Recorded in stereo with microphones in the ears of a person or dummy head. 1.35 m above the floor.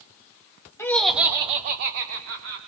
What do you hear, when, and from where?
0.8 s laughter: 15° left (ahead or behind), 1.2 m; by 2.6 s 85° right, 1.7 m